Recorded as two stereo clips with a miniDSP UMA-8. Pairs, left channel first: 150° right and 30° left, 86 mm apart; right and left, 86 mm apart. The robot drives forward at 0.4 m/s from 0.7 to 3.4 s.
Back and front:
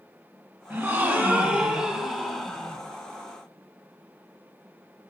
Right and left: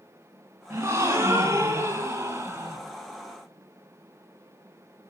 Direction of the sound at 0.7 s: 60° left.